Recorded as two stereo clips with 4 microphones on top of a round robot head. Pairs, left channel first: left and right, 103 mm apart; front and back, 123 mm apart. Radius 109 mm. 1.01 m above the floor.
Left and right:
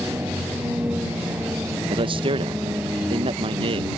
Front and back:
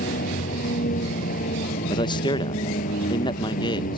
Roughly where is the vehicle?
Ahead.